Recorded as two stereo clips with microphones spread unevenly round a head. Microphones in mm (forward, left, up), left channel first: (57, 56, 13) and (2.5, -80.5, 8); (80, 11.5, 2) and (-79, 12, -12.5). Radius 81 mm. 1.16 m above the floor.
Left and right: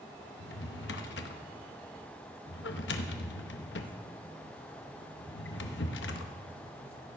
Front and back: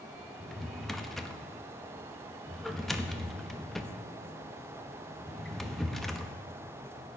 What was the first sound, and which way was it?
A drawer, 85° left.